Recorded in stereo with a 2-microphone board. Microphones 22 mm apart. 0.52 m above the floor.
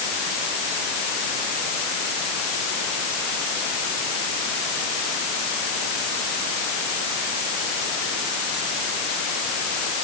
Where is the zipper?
No zipper in this recording.